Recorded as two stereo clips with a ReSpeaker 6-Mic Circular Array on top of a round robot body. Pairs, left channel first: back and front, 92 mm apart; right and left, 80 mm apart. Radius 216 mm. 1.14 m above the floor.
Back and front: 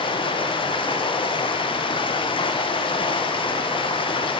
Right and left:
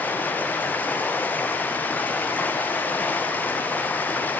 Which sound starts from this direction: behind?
Running water, at 0.0 s.